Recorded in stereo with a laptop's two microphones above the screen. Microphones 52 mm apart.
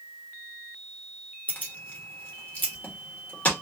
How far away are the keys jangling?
About 1.3 m.